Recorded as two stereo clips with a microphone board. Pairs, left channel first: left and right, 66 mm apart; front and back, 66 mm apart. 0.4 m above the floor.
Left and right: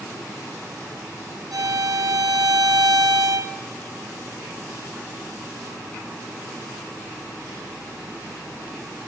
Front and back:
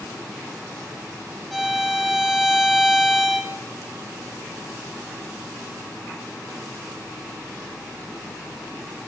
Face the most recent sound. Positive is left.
turn(degrees=-90)